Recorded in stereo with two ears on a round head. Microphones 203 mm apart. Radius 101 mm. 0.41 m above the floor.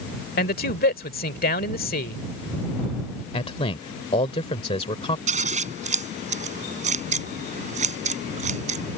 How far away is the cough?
I don't hear a cough.